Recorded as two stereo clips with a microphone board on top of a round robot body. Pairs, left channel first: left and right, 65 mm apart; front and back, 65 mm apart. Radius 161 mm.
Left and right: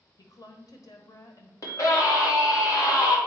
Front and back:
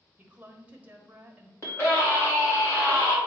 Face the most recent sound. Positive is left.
turn(degrees=50)